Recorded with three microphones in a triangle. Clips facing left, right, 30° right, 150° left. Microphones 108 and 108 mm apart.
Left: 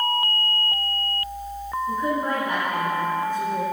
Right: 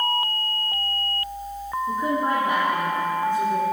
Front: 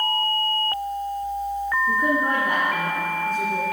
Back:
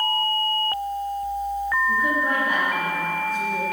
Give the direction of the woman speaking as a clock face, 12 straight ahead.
1 o'clock.